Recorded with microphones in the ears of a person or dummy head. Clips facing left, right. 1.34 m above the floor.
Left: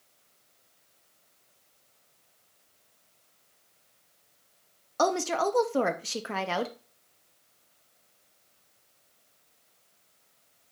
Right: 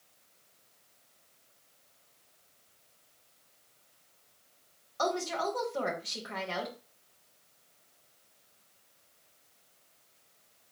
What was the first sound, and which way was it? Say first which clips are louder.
A woman speaking: left 6 dB; 65° left (ahead or behind).